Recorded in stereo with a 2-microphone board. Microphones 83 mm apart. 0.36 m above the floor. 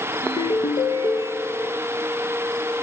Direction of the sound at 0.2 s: 80° left.